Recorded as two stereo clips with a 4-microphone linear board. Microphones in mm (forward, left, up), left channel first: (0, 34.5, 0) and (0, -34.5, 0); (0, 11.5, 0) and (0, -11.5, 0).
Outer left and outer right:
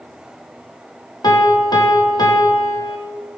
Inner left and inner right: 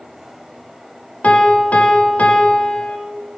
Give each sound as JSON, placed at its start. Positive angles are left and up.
{"t": 1.2, "sound": "a piano", "side_deg": 85, "distance_m": 1.1}